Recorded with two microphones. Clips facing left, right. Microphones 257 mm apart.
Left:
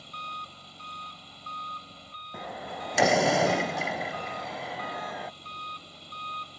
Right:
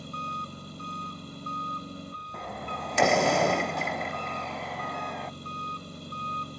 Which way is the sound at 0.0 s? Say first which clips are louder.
Right 9 dB; 55° right (ahead or behind).